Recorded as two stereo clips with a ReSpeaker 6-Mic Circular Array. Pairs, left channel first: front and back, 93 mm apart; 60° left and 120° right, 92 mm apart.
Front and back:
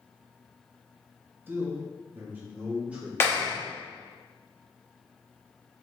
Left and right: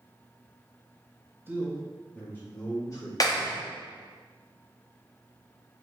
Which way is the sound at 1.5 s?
145° right.